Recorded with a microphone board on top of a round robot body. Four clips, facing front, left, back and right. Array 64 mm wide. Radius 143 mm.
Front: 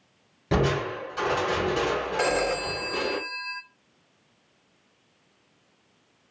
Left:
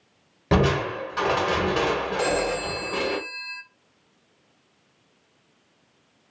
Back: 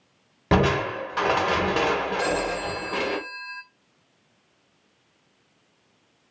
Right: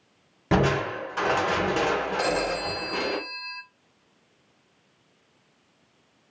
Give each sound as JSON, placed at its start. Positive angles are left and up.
{"t": 0.5, "sound": "crushing", "azimuth_deg": 170, "distance_m": 1.4}
{"t": 2.2, "sound": "a phone ringing", "azimuth_deg": -15, "distance_m": 1.0}